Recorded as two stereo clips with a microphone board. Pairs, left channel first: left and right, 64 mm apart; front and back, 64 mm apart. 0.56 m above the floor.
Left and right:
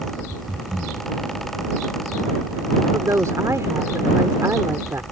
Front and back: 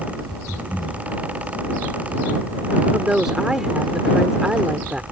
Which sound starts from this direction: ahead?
Breathing, at 0.5 s.